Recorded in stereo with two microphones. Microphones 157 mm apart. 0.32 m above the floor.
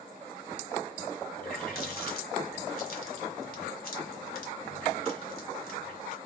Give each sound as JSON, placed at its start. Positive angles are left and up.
{"t": 1.4, "sound": "a running tap", "side_deg": 65, "distance_m": 1.7}